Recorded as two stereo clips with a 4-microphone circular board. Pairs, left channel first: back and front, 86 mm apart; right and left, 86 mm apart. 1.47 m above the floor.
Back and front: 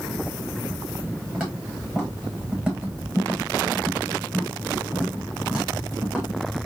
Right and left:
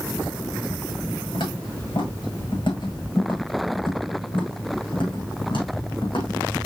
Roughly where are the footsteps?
Right.